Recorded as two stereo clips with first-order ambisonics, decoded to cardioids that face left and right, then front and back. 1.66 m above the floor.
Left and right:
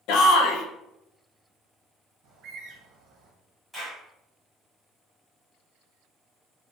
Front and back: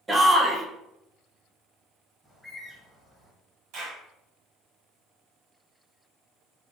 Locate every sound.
0.1 s a shout: 105° left, 0.6 m
2.2 s a bird: 85° right, 1.0 m
3.7 s a clap: 175° left, 1.5 m